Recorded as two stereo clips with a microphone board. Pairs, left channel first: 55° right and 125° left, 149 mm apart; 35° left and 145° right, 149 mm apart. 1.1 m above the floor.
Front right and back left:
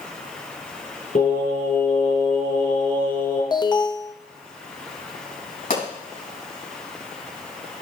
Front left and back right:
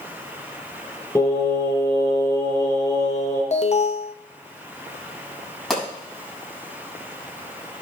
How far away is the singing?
About 6.5 m.